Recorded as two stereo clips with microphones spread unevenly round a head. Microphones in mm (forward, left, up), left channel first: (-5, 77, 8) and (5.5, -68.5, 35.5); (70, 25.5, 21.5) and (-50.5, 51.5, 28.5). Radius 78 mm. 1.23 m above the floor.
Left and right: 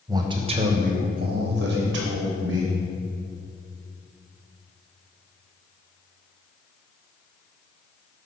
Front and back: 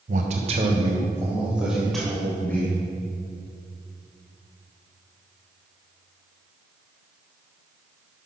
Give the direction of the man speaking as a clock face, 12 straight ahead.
5 o'clock.